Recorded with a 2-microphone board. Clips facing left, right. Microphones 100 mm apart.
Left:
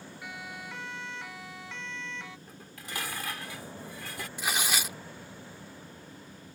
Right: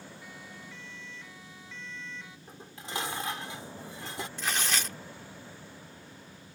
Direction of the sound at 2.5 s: 25° right (ahead or behind).